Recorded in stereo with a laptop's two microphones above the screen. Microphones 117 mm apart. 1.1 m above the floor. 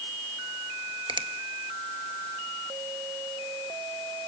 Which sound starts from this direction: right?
A finger snap, at 1.1 s.